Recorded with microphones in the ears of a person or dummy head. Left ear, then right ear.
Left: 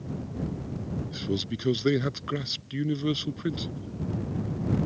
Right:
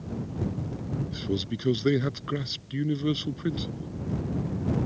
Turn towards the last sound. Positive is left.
turn(degrees=10)  # may be behind; listen again after turning